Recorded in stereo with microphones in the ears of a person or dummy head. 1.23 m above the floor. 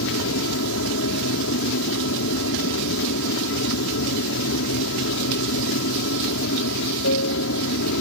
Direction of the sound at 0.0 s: 65° left (ahead or behind).